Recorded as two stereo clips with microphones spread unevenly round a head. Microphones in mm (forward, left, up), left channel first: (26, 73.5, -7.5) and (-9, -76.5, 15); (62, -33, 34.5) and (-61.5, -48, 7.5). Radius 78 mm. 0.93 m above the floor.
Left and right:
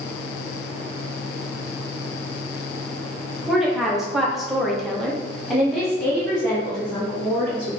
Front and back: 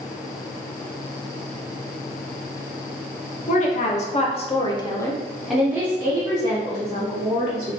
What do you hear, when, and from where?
3.5 s a woman speaking: 10° right, 1.0 m; by 7.8 s 160° left, 1.5 m